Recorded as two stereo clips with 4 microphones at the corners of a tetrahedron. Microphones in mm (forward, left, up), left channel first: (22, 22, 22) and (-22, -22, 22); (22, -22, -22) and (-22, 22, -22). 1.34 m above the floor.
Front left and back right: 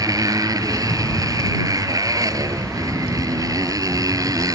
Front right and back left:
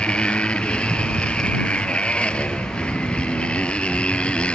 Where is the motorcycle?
115° right.